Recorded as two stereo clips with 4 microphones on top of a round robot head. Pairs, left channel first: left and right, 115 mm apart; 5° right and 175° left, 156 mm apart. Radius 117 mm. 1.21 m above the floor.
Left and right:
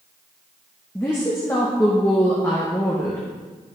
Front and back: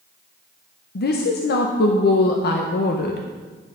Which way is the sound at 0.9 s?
15° left.